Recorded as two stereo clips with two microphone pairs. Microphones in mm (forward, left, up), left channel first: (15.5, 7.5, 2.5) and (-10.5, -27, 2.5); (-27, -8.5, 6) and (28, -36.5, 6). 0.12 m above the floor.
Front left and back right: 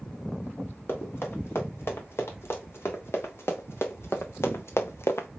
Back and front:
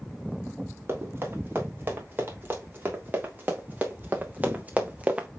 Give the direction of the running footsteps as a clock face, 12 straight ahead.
11 o'clock.